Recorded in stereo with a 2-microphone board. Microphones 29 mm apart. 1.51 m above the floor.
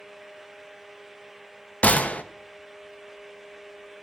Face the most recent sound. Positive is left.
turn(degrees=60)  # may be behind; listen again after turning